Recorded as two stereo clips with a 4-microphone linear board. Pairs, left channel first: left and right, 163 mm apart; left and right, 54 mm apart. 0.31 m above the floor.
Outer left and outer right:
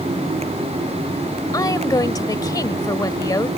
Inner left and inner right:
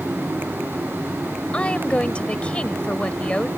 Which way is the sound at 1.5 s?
20° left (ahead or behind).